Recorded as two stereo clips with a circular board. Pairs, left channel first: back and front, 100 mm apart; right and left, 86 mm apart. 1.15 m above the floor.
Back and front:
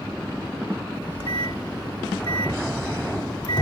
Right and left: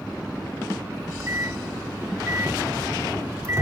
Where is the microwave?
145° left.